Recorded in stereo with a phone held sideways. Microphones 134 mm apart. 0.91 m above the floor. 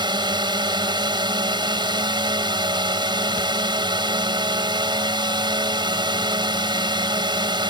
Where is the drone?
35° right (ahead or behind).